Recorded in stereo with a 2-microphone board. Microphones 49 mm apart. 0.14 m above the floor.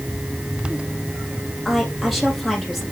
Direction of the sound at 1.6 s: 5° left (ahead or behind).